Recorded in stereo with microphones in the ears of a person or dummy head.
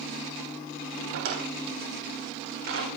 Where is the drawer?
70° right (ahead or behind), 3.5 m.